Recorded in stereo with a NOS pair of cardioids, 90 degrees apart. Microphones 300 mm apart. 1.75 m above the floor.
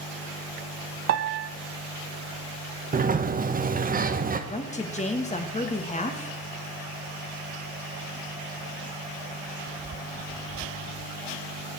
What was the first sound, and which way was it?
A piano, 55° right.